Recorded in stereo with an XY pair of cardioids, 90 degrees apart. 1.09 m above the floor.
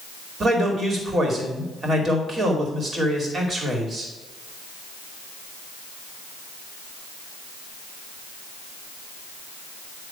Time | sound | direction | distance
0.4 | a man speaking | 40° right | 2.5 m